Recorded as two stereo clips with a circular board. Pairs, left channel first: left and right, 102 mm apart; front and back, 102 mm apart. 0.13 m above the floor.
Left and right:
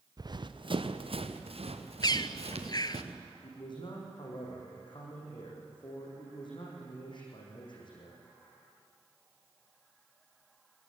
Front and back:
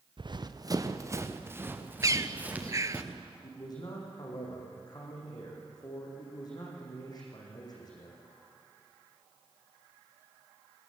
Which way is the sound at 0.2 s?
140° right.